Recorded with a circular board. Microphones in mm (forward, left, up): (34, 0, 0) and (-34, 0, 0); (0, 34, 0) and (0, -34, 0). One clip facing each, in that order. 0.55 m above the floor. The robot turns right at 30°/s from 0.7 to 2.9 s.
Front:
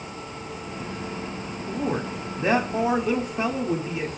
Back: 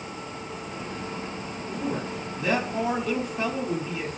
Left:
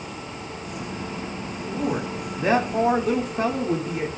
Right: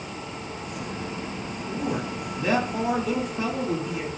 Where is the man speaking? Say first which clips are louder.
Front 3 dB, left 3 dB; 20° left, 1.2 m; by 4.1 s 55° left, 1.2 m.